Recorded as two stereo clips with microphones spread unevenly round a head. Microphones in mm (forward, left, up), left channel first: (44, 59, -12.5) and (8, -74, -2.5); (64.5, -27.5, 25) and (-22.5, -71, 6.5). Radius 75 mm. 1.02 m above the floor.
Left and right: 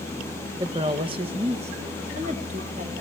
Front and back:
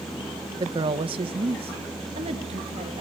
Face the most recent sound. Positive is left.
turn(degrees=-155)